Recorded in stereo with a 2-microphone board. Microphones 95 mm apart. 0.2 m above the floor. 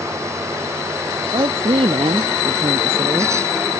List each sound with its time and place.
1.2 s a woman speaking: 75° right (ahead or behind)